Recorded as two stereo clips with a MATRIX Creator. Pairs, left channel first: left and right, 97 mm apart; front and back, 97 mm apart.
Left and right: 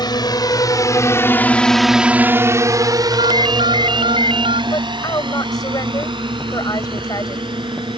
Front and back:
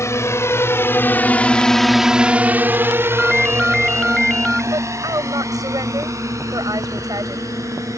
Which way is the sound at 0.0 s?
55° left.